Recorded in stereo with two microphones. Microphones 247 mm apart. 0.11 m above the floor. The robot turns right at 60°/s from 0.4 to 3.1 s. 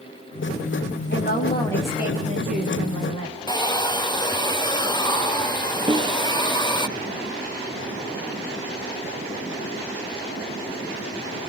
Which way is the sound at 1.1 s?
135° left.